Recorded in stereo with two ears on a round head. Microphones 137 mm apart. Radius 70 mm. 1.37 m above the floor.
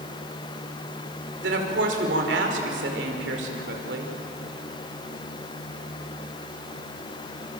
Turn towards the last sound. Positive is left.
turn(degrees=-80)